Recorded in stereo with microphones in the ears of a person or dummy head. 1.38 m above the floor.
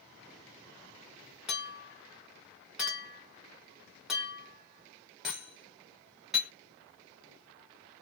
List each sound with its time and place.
1.5 s a clink: 5° right (ahead or behind), 0.8 m